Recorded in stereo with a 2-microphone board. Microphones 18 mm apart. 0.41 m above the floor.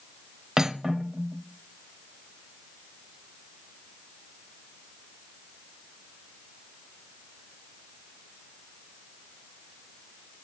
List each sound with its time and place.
0.6 s cutlery clinking: 35° right (ahead or behind), 1.0 m